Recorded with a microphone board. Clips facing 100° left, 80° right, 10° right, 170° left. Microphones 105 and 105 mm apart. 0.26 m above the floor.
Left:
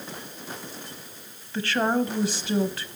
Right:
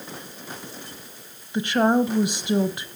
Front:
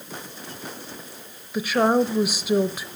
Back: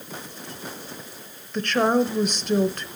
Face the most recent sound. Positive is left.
turn(degrees=-75)